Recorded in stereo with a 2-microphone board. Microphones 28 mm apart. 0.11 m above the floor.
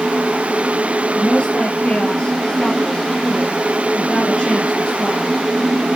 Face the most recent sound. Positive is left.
turn(degrees=40)  # may be behind; listen again after turning